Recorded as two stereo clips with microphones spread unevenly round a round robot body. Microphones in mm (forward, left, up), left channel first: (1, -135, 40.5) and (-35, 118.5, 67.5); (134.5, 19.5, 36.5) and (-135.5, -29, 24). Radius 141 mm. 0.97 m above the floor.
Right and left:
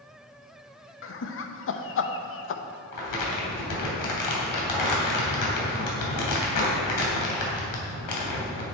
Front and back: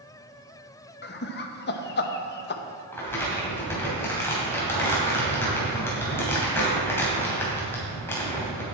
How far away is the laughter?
About 0.8 m.